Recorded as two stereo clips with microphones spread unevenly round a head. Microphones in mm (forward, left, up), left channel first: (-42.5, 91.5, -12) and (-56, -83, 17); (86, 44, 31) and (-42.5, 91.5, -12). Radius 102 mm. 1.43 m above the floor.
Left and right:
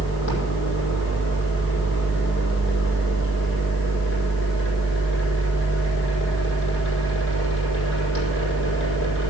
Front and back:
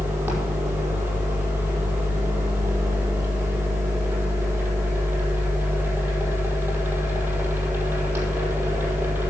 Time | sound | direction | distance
0.0 | a machine running | 80° left | 5 m